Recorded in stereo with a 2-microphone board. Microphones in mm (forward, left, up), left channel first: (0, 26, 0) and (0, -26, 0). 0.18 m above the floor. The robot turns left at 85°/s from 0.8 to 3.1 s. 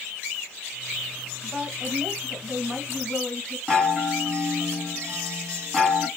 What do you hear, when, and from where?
1.4 s a woman speaking: 35° right, 1.4 m; by 3.6 s straight behind, 1.4 m
3.7 s a chime: 10° left (ahead or behind), 1.6 m